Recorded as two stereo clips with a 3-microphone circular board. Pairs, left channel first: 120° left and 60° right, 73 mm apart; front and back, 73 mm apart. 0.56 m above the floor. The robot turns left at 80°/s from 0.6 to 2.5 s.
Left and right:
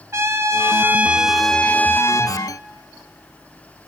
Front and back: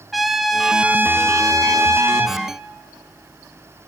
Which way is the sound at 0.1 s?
90° right.